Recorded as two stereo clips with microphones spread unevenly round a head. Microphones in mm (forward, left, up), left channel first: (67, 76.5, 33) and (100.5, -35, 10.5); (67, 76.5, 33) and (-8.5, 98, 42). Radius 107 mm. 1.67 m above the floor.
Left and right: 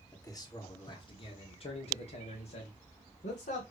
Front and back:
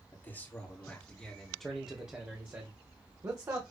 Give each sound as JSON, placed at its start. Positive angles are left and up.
{"t": 0.1, "sound": "a man speaking", "azimuth_deg": 45, "distance_m": 2.0}